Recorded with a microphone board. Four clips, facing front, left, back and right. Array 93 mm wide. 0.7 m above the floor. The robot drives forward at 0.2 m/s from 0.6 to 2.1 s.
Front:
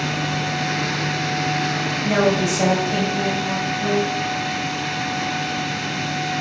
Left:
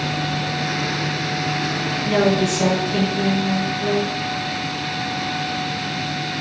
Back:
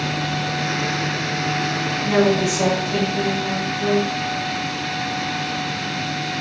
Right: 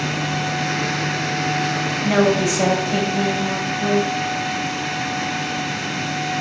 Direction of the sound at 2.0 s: 85° right.